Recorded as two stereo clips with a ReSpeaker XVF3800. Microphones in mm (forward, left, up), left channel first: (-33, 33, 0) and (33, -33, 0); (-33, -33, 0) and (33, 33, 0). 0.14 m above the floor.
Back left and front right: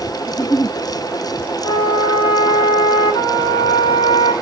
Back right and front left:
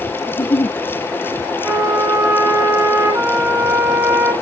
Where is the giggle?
160° right, 1.9 m.